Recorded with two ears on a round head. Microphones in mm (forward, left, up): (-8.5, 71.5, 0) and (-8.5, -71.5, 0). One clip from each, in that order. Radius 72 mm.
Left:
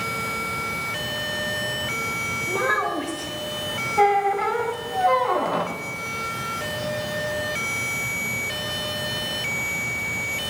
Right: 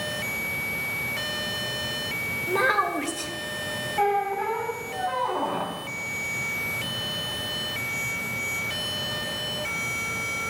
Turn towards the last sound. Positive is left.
turn(degrees=85)